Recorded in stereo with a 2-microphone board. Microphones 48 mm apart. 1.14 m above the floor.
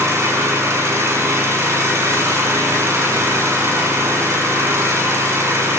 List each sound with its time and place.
0.0 s an engine running: 75° right (ahead or behind), 7.5 m